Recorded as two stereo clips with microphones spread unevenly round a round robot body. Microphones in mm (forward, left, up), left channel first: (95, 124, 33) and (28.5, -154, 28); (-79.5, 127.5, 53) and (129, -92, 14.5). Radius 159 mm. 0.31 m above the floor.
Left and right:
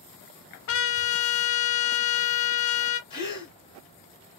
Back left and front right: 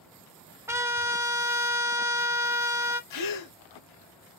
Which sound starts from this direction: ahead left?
A trumpet, at 0.7 s.